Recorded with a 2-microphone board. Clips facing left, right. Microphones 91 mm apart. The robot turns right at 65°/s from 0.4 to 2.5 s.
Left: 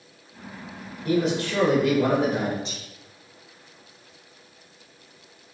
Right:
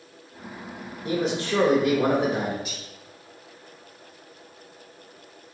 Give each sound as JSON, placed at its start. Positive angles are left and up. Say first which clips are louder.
{"t": 1.1, "sound": "a man speaking", "louder": "left 2 dB", "side_deg": -20, "distance_m": 0.9}
{"t": 2.6, "sound": "whispering", "louder": "even", "side_deg": 30, "distance_m": 1.0}